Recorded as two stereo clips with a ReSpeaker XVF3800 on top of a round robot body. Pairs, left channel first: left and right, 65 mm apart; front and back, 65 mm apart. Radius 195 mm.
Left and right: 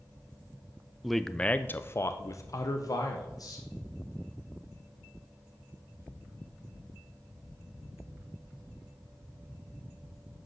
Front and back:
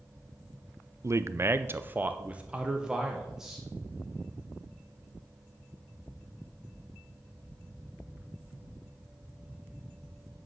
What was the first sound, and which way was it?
A man speaking, 175° right.